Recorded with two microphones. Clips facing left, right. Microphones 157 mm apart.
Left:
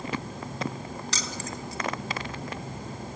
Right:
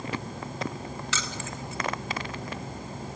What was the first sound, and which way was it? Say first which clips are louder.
Keys jangling: even; 40° left (ahead or behind).